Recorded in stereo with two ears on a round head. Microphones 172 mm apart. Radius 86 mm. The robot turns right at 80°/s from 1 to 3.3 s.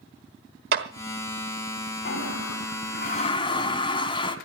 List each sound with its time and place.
0.7 s a clap: 55° right (ahead or behind), 1.3 m
2.0 s a toilet flushing: 55° left, 1.5 m; by 4.4 s 155° left, 1.5 m